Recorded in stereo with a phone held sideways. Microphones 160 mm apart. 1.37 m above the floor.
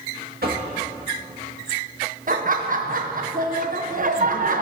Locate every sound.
0.4 s knocking: 75° right (ahead or behind), 1.3 m
2.3 s laughter: 60° right (ahead or behind), 0.6 m